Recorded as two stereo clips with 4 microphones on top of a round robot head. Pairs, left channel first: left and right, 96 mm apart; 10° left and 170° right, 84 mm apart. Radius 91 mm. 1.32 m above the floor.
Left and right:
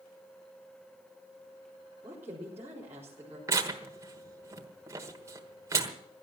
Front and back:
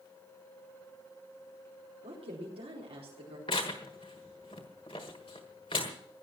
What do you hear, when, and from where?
2.0 s a woman speaking: 160° right, 4.5 m
3.5 s tearing paper: 40° right, 1.2 m